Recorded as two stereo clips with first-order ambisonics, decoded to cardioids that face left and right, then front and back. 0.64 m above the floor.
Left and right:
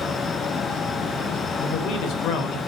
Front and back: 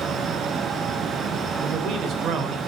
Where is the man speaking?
125° left, 3 m.